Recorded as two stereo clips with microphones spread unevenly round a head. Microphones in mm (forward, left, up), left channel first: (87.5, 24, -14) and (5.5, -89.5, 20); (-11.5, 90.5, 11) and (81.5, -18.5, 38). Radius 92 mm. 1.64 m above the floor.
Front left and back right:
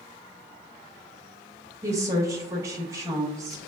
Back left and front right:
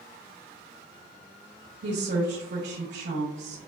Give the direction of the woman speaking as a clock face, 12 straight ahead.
2 o'clock.